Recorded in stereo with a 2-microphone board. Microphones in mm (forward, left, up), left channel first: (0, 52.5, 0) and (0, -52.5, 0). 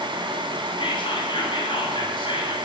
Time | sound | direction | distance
0.8 | whispering | 50° left (ahead or behind) | 1.6 m